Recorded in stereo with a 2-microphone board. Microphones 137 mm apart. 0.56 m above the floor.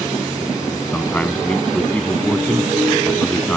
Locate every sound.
0.9 s a man speaking: 10° left (ahead or behind)